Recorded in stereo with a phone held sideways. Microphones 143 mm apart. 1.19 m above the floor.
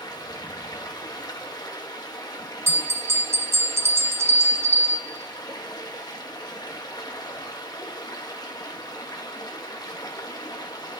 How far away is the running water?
About 1.2 m.